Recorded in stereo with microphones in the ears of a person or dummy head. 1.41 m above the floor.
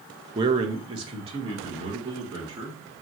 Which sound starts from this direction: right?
A man speaking, at 0.3 s.